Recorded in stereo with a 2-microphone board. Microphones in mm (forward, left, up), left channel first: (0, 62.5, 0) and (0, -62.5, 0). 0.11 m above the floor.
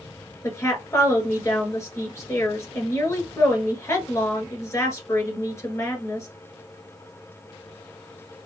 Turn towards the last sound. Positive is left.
turn(degrees=25)  # may be behind; listen again after turning